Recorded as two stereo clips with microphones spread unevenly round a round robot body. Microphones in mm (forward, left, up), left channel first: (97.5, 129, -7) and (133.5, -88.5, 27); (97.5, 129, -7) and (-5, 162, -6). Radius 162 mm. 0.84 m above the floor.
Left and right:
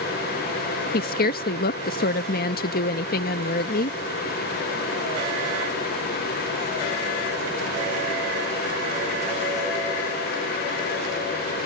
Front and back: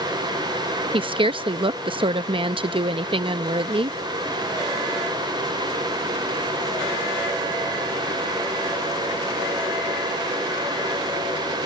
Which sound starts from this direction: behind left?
A woman speaking, at 0.9 s.